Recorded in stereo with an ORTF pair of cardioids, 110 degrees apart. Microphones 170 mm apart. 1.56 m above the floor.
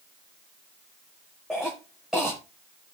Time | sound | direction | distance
1.5 | a cough | 5° right | 1.6 m